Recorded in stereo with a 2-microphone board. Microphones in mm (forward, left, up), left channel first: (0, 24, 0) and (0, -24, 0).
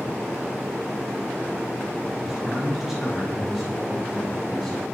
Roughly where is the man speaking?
Centre.